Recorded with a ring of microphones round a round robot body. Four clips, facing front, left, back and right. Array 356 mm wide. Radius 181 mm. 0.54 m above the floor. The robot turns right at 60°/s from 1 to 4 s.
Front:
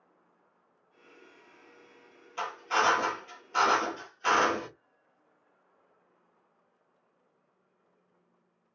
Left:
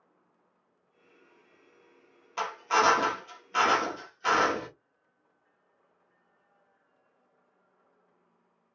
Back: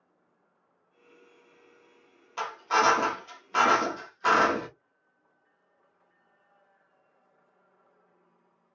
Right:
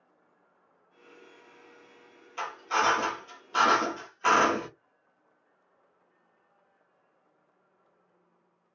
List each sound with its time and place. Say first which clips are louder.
2.4 s a drill: left 3 dB, back 3 dB; 120° left, 1.4 m; by 4.7 s 140° right, 1.4 m